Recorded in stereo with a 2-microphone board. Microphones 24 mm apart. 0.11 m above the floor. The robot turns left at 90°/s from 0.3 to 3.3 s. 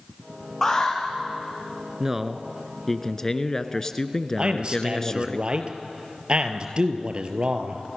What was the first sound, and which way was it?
An alarm, 165° left.